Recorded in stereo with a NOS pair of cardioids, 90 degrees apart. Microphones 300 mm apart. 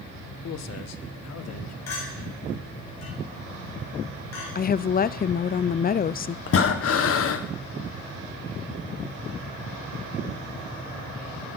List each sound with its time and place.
0.4 s a man speaking: 60° left, 1.1 m; by 1.8 s 55° left, 1.9 m
1.9 s a clink: 60° left, 8 m
4.5 s a woman speaking: 30° left, 0.6 m
6.5 s breathing: 50° left, 1.4 m